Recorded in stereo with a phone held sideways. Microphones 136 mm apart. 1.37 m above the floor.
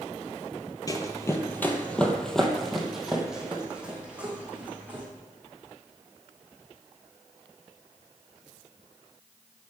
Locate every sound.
0.9 s running footsteps: 25° left (ahead or behind), 1.5 m; by 5.0 s 10° right (ahead or behind), 4 m